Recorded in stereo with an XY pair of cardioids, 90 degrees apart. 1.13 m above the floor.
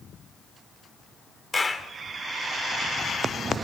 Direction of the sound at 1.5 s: 25° left.